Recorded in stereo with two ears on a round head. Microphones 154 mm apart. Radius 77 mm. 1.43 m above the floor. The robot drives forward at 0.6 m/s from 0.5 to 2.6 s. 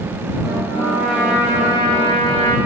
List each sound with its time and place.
0.7 s a trumpet: 40° left (ahead or behind), 3 m; by 2.6 s 30° left (ahead or behind), 3.5 m